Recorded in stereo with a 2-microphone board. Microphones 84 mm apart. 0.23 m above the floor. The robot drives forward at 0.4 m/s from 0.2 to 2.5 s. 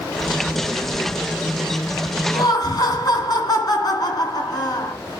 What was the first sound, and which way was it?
Laughter, 50° left (ahead or behind).